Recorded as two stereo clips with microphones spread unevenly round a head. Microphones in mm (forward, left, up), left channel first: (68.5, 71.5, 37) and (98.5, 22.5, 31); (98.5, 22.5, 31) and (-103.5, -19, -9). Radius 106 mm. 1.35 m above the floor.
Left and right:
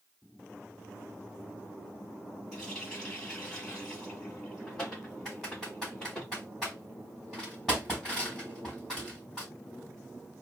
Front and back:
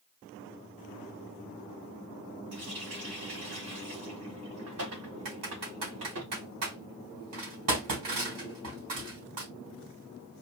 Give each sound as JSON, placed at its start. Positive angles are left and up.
{"t": 2.5, "sound": "a running tap", "azimuth_deg": -150, "distance_m": 3.5}
{"t": 5.2, "sound": "typing on a keyboard", "azimuth_deg": -155, "distance_m": 4.0}